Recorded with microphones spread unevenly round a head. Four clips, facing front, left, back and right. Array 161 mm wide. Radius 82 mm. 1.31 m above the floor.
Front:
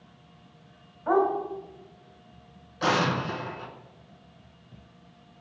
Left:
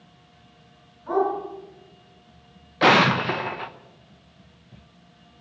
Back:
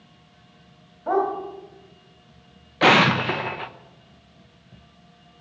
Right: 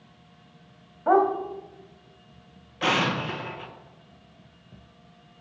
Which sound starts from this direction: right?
A dog barking, at 1.1 s.